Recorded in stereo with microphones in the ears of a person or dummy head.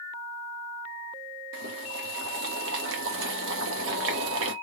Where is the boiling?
75° right (ahead or behind), 1.1 m.